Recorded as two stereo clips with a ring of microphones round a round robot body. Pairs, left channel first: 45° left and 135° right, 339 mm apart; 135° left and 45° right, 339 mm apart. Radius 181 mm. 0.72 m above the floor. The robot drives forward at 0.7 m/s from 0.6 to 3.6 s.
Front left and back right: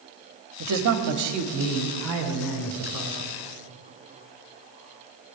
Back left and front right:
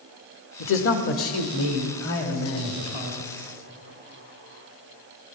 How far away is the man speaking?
About 1.3 m.